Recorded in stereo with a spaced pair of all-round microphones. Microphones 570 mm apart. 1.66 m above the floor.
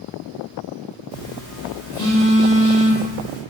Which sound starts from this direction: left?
A phone buzzing, at 1.1 s.